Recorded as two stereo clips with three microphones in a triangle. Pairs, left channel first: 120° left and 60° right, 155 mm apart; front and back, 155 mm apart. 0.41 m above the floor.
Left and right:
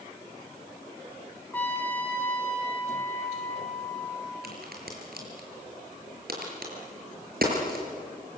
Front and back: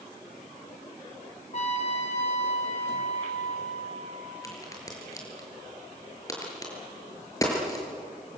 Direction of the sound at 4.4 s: 70° right.